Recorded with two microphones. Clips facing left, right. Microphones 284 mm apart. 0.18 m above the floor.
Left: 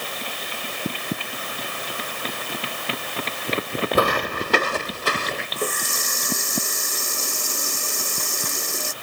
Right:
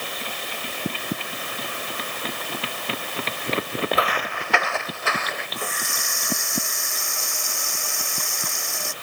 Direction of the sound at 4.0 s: 50° left (ahead or behind).